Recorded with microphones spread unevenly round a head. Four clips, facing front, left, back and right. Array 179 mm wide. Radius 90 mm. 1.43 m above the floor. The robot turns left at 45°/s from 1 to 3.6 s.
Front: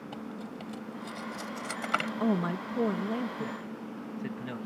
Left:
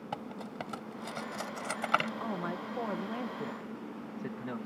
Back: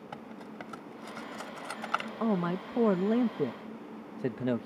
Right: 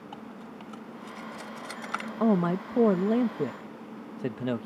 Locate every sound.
0.1 s cutlery clinking: 105° left; by 2.1 s 55° left
2.2 s a man speaking: 80° right; by 4.7 s 140° right